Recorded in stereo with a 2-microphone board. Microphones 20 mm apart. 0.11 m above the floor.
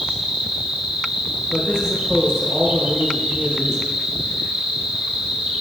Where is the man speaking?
Centre (ahead or behind), 3.5 m.